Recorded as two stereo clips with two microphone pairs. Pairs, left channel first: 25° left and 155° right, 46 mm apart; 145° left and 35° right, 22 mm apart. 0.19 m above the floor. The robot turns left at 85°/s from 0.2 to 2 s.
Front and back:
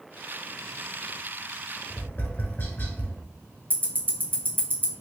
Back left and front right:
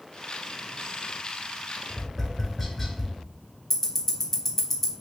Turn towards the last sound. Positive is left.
turn(degrees=-145)